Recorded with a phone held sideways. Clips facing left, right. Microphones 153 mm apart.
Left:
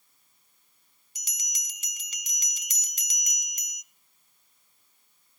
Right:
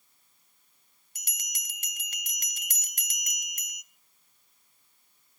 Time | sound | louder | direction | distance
1.1 | a bell | right 1 dB | 55° right (ahead or behind) | 1.0 m